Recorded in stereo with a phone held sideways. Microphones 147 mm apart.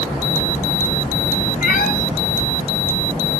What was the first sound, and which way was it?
A cat meowing, 70° left (ahead or behind).